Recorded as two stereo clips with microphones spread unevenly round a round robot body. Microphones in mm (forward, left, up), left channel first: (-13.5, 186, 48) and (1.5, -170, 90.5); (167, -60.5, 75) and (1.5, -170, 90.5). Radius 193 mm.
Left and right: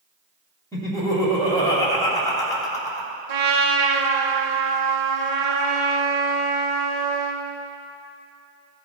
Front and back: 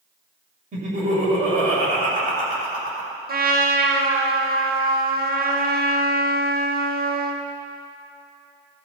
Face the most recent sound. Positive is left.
turn(degrees=-110)